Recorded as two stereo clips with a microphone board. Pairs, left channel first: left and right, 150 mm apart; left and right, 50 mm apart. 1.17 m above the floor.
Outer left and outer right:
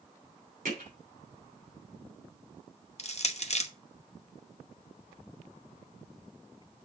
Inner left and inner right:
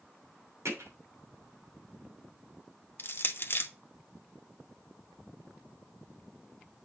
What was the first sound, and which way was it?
Hammering, 80° right.